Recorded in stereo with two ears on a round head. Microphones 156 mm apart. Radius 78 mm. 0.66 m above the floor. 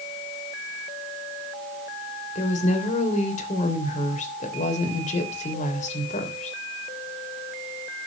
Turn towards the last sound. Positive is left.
turn(degrees=45)  # may be behind; listen again after turning